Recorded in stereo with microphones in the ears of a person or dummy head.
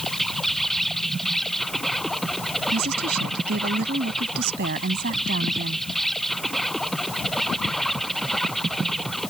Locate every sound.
0.0 s an insect: centre (ahead or behind)
2.7 s a woman speaking: 60° right (ahead or behind)